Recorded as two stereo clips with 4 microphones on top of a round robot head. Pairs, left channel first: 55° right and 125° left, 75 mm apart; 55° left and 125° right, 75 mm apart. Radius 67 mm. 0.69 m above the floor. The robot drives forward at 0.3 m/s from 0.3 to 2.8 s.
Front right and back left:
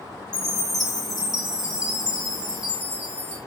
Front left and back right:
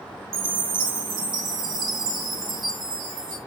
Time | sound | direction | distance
0.3 | a chime | 130° right | 0.6 m